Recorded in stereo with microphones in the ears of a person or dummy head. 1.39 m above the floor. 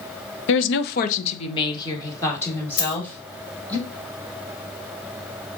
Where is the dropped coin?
65° left (ahead or behind), 2.5 m.